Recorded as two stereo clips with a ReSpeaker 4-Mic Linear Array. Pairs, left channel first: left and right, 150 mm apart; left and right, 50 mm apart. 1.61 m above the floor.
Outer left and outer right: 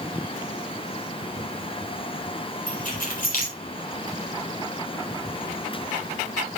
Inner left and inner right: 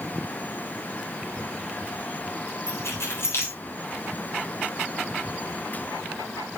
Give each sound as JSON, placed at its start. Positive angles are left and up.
{"t": 2.7, "sound": "keys jangling", "side_deg": 65, "distance_m": 3.5}